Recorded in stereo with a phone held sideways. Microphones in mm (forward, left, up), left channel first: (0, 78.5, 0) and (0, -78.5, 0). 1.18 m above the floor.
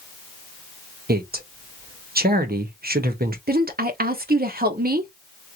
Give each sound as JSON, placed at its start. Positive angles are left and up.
{"t": 1.1, "sound": "a man speaking", "side_deg": -75, "distance_m": 0.8}
{"t": 3.5, "sound": "a woman speaking", "side_deg": -75, "distance_m": 0.8}